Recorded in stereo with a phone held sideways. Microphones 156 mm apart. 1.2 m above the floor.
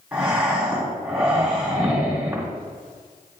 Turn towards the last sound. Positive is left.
turn(degrees=-10)  # may be behind; listen again after turning